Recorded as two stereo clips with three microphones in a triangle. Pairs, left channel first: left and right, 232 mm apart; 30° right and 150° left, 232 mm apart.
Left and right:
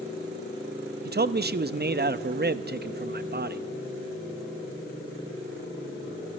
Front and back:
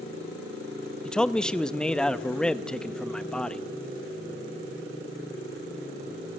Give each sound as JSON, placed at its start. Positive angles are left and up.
{"t": 1.1, "sound": "a man speaking", "azimuth_deg": -115, "distance_m": 0.5}